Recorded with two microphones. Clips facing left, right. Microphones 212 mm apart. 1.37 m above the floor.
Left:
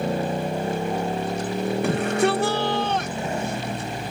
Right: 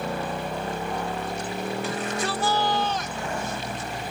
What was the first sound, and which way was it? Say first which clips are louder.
A motorcycle: left 5 dB; 25° left (ahead or behind).